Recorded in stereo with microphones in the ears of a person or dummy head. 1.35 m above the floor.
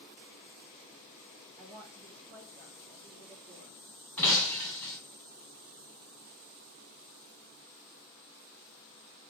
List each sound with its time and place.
1.6 s a woman speaking: 15° right (ahead or behind), 1.3 m; by 3.8 s 55° right (ahead or behind), 3 m
4.2 s breaking glass: 5° left (ahead or behind), 1.1 m